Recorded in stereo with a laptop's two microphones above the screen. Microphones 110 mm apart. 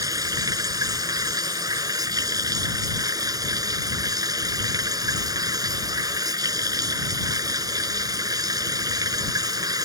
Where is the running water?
35° right (ahead or behind).